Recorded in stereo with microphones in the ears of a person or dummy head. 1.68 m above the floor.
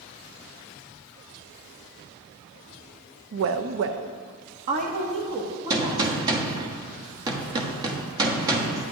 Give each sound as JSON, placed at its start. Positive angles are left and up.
{"t": 3.3, "sound": "a woman speaking", "side_deg": -70, "distance_m": 0.6}
{"t": 5.7, "sound": "a gunshot", "side_deg": -25, "distance_m": 1.0}